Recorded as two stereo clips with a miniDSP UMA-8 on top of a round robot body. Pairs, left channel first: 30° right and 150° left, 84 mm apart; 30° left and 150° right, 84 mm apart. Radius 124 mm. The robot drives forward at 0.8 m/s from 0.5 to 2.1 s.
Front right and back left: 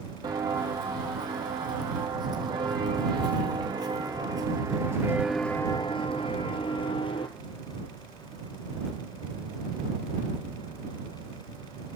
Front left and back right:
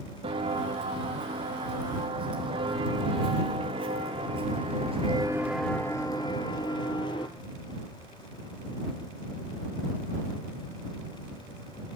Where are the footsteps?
165° right, 1.5 m; by 7.3 s straight ahead, 1.1 m.